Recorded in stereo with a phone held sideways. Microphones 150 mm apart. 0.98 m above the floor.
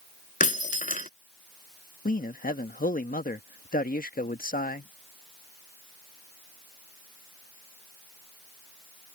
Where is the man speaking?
70° left (ahead or behind).